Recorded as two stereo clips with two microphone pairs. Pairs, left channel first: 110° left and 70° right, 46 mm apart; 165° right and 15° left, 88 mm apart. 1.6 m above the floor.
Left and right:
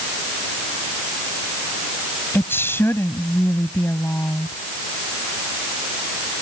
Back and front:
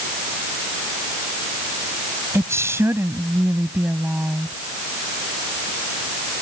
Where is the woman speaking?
70° left; by 4.6 s 90° left.